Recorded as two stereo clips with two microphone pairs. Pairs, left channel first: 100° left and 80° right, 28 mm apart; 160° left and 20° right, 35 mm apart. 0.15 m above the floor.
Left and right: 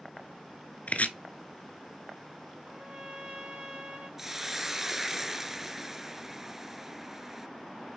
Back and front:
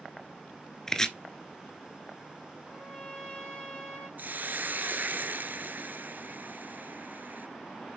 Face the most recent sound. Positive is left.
turn(degrees=-5)